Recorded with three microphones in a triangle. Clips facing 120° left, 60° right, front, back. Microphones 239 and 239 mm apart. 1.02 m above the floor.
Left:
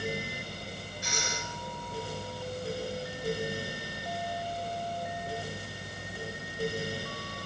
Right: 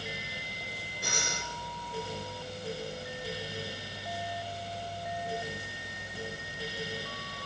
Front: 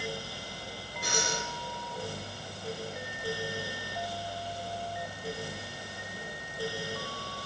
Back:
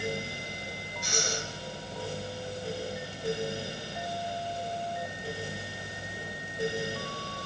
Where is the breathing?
30° right, 8 m.